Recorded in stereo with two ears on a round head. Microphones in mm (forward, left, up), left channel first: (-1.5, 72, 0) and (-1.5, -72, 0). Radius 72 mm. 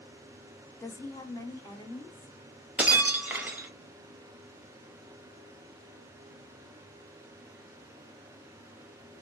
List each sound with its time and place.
0.8 s a woman speaking: 15° left (ahead or behind), 0.5 m; by 2.4 s 25° left (ahead or behind), 1.4 m
2.8 s breaking glass: 10° right (ahead or behind), 0.6 m